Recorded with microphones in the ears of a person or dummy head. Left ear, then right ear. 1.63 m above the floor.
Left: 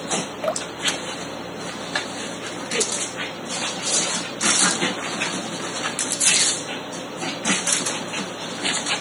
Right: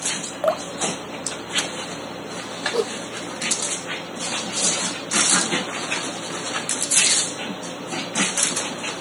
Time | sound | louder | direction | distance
0.4 | dripping | right 4 dB | 25° right (ahead or behind) | ?
2.7 | a whoosh | left 1 dB | 55° right (ahead or behind) | ?